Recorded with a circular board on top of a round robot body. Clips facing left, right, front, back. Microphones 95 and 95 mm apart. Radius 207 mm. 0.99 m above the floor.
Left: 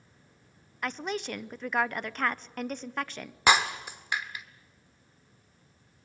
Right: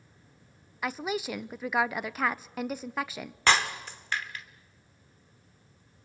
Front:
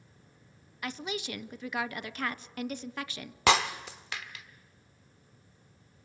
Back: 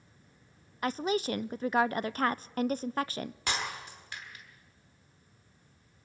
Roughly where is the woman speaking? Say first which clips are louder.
Right 2 dB, back 7 dB; behind.